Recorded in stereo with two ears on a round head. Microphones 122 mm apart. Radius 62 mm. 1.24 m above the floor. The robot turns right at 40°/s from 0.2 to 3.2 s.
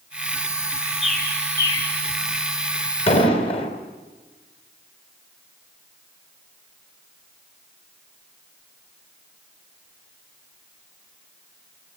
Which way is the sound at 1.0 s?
5° right (ahead or behind).